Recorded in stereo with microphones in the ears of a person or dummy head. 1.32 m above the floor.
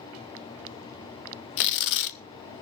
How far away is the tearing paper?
About 0.9 m.